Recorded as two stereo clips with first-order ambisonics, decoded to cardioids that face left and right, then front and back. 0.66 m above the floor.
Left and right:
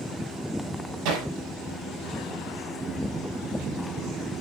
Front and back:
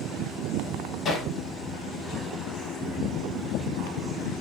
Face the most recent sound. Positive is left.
turn(degrees=-65)